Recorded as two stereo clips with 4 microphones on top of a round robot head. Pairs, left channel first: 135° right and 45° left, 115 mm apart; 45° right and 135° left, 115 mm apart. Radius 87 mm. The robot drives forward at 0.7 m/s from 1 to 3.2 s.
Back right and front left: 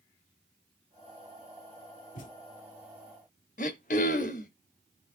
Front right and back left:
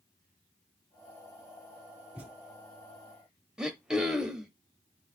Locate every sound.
2.1 s a thud: 145° right, 3 m
3.6 s throat clearing: 140° right, 0.6 m